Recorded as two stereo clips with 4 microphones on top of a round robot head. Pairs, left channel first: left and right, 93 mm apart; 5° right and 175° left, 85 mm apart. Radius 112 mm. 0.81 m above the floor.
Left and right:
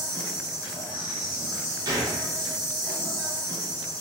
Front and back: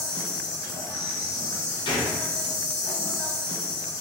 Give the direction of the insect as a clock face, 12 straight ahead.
11 o'clock.